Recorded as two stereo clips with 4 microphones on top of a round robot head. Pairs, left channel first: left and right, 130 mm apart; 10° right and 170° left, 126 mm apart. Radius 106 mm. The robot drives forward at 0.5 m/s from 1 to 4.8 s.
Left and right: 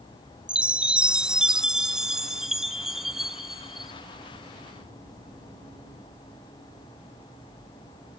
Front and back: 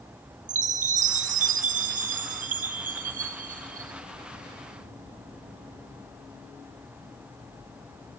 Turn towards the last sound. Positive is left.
turn(degrees=180)